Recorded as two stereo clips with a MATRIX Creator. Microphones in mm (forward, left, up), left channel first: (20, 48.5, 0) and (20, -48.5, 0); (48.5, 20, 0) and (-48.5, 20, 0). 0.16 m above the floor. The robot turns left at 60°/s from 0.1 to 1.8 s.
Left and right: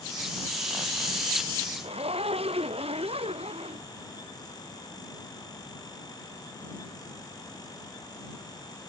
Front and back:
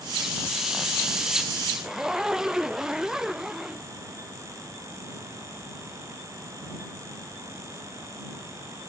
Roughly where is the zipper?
Right.